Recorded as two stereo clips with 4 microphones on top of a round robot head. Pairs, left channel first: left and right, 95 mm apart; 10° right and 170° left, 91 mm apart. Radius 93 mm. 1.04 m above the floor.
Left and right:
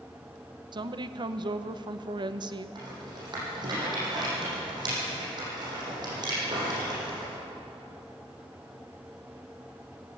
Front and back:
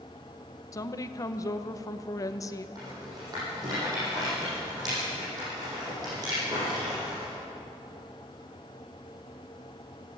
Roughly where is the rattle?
Behind right.